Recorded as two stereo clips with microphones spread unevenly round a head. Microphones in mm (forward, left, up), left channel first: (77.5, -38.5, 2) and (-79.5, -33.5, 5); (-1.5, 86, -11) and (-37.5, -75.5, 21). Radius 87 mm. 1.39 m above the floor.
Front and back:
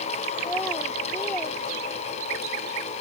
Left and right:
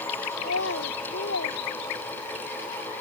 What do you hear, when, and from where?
0.4 s a child speaking: 80° left; by 2.5 s 85° left